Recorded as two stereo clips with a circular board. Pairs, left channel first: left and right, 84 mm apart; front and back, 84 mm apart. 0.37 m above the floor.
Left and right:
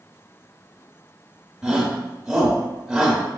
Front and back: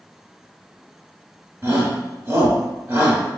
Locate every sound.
1.6 s a shout: 170° right, 1.5 m